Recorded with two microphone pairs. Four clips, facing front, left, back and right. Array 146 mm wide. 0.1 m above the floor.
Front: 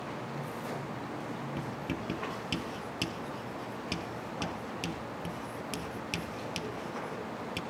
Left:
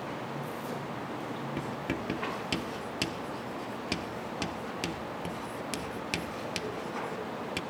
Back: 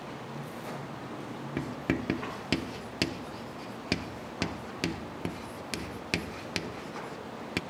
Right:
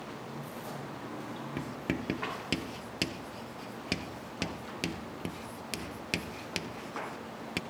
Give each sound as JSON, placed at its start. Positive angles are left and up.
{"t": 1.6, "sound": "writing", "azimuth_deg": -175, "distance_m": 0.9}